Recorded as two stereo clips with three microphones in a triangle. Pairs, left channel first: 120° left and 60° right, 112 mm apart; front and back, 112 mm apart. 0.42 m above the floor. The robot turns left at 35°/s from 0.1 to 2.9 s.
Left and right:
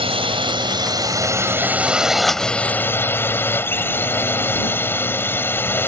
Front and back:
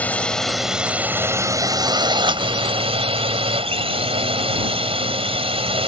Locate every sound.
0.0 s a drone: 75° right; by 5.9 s 175° right